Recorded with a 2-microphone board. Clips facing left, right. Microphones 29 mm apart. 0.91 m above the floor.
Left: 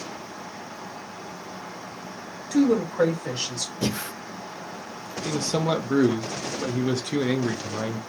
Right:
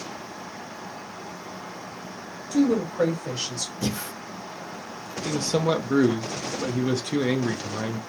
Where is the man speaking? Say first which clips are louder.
Right 1 dB; centre (ahead or behind), 0.6 m.